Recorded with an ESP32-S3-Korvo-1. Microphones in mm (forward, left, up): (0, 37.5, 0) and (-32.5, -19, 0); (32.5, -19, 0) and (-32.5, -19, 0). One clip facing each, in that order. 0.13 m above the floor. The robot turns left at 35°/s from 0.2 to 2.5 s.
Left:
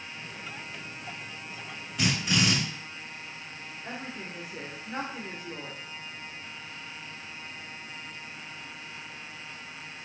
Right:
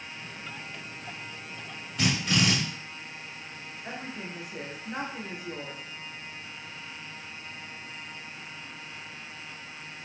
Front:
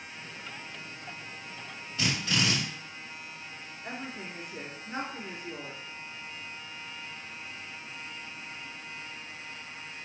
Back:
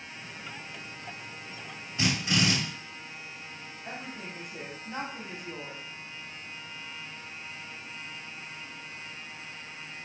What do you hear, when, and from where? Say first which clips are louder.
2.0 s a drill: right 1 dB, back 2 dB; 150° left, 1.7 m; by 2.5 s 130° left, 1.7 m
3.8 s a woman speaking: right 1 dB, front 1 dB; 40° right, 1.3 m